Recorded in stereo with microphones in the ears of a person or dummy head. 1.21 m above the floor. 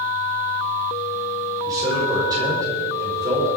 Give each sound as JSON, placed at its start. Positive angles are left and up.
{"t": 1.6, "sound": "a man speaking", "side_deg": -10, "distance_m": 6.0}